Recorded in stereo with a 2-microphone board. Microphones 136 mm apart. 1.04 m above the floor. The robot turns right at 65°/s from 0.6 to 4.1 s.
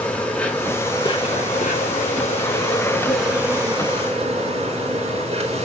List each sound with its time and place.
0.0 s an insect: 10° left, 3.5 m; by 5.6 s 120° right, 3.5 m